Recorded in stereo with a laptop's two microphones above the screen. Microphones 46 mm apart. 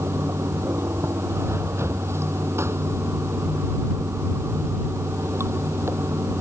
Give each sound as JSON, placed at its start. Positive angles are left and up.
{"t": 0.0, "sound": "running water", "side_deg": -80}